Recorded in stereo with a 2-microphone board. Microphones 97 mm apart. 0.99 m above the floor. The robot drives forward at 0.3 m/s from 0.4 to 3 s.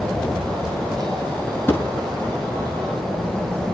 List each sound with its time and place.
1.7 s a thud: 20° left (ahead or behind), 6 m